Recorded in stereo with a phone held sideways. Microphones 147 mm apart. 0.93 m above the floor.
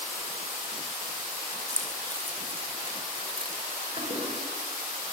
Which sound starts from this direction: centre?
Keys jangling, at 1.7 s.